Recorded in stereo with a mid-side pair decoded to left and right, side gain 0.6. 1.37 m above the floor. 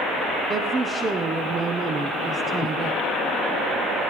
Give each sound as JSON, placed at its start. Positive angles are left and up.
{"t": 0.5, "sound": "a woman speaking", "azimuth_deg": -30, "distance_m": 1.0}